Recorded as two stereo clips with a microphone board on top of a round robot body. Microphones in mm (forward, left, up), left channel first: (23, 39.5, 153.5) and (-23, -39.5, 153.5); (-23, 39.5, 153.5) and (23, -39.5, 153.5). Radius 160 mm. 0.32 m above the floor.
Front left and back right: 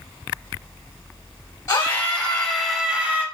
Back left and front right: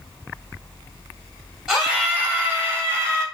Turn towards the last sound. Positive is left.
turn(degrees=-70)